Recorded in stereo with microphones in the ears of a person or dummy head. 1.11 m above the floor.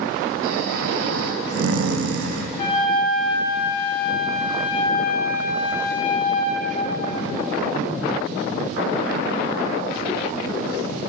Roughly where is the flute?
Left.